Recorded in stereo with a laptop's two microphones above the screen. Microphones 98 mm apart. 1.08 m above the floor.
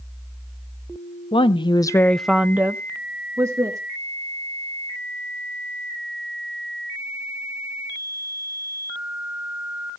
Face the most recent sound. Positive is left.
turn(degrees=-35)  # may be behind; listen again after turning